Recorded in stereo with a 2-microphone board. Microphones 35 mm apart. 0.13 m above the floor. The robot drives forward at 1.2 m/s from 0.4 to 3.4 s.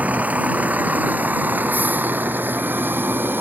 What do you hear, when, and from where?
0.0 s a vehicle: 45° right (ahead or behind); by 3.4 s 75° right (ahead or behind)